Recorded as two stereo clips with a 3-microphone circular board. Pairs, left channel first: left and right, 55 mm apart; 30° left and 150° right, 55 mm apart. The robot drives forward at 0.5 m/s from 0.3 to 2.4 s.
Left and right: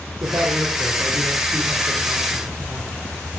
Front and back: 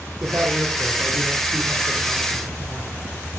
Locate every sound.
0.2 s a man speaking: 100° right, 4.5 m; by 2.9 s 115° right, 5 m